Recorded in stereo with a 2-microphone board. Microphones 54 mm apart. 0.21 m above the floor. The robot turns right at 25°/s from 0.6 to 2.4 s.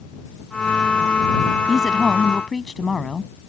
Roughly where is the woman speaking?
Centre.